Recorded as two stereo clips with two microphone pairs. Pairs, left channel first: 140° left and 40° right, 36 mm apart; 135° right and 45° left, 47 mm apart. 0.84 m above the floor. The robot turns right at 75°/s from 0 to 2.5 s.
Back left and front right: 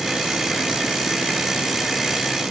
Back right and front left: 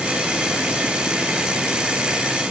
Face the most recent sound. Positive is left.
No sound to turn to.